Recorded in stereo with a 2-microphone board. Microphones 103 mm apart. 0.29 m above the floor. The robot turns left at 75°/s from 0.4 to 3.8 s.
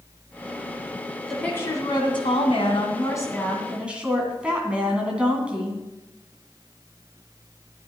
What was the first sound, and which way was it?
A woman speaking, straight behind.